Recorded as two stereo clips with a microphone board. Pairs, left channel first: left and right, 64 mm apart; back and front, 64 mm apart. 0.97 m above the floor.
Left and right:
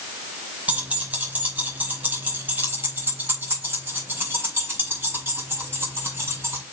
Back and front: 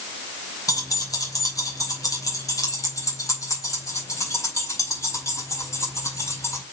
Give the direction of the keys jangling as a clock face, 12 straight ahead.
5 o'clock.